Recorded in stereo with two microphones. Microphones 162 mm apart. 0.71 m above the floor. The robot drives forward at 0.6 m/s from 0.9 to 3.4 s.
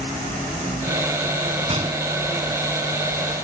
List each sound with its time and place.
1.7 s a gunshot: 35° right (ahead or behind)